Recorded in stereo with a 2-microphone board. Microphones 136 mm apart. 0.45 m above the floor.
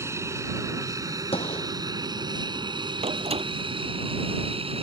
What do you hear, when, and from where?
0.0 s an aircraft: 20° right (ahead or behind); by 4.8 s 45° right (ahead or behind)
1.3 s a gunshot: 45° left (ahead or behind)
3.0 s a door slam: 45° right (ahead or behind)